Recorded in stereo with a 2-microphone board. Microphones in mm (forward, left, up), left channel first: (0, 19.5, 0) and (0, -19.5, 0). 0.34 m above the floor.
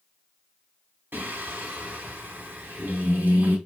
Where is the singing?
75° right (ahead or behind), 1.0 m.